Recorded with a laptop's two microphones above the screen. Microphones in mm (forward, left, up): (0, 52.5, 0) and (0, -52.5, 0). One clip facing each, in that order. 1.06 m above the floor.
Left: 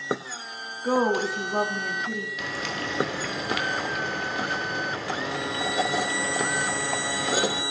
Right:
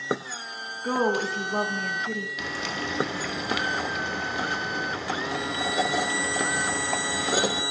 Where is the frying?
Centre (ahead or behind), 1.4 m.